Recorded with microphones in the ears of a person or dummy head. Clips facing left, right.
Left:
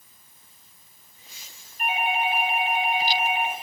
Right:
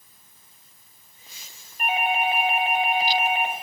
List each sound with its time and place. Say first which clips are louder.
1.8 s a doorbell: right 2 dB; 45° right (ahead or behind), 0.8 m